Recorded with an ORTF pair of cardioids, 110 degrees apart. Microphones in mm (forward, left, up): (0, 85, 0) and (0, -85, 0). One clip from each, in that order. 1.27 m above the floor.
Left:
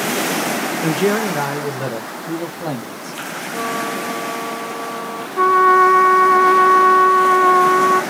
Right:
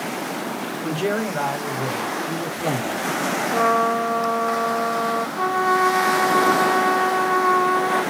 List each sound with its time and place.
0.8 s a man speaking: 30° left, 0.7 m; by 3.2 s 50° left, 1.9 m
3.5 s a trumpet: 25° right, 0.6 m
5.4 s a trumpet: 50° left, 1.4 m